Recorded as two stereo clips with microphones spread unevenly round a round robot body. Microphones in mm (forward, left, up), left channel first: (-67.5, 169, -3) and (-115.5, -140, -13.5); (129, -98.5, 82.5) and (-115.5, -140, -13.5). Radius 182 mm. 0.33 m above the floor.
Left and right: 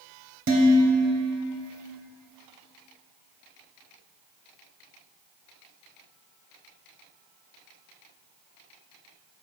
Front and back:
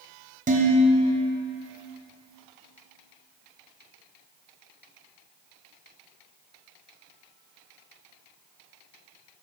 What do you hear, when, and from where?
0.5 s dishes clattering: 135° right, 1.2 m